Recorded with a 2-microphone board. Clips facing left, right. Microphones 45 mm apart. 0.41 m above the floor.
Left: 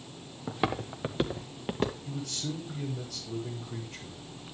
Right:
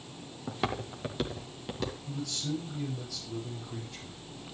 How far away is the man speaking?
About 8 m.